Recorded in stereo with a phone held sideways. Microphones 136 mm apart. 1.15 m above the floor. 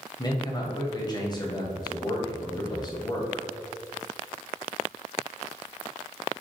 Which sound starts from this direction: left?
A man speaking, at 0.2 s.